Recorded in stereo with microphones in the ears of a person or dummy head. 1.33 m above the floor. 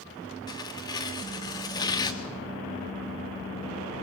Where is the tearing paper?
20° left (ahead or behind), 1.3 m.